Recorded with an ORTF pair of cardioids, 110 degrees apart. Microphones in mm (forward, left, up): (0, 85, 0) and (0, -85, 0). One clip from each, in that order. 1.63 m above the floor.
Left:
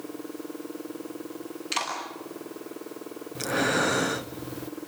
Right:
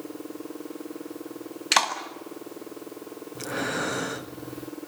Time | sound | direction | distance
1.7 | a clap | 70° right | 7.5 m
3.4 | breathing | 20° left | 1.1 m